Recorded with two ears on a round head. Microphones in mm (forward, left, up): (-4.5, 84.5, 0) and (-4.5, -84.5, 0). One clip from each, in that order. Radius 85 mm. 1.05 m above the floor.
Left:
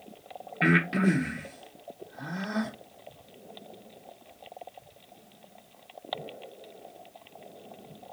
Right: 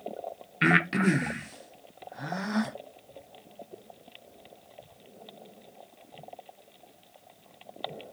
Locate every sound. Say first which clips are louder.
0.6 s breathing: right 1 dB; 30° right (ahead or behind), 0.7 m